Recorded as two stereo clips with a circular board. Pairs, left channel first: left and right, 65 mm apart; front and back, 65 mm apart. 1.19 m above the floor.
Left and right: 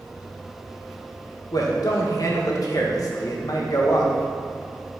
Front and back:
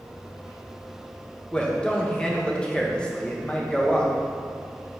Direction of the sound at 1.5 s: 75° left.